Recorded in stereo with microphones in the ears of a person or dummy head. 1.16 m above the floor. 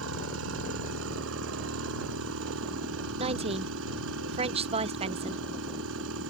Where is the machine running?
85° right.